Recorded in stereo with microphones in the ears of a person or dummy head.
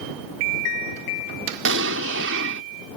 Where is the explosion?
75° right (ahead or behind).